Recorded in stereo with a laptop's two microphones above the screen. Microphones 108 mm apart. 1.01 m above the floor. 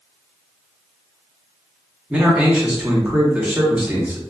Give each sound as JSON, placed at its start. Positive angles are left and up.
{"t": 2.1, "sound": "a man speaking", "side_deg": -10, "distance_m": 0.8}